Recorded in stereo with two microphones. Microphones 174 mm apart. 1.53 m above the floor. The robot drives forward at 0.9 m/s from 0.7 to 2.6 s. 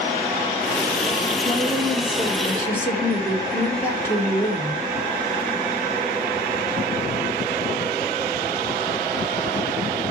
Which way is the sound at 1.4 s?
20° left (ahead or behind).